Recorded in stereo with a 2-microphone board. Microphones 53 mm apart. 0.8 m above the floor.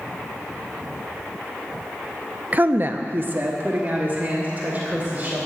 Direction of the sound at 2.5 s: 30° right (ahead or behind).